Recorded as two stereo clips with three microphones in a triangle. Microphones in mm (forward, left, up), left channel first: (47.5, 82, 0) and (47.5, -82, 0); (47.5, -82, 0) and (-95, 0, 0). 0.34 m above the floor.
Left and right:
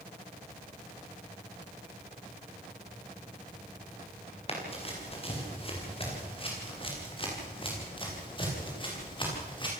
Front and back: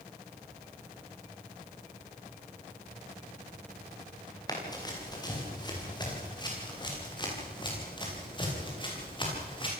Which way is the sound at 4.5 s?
35° left.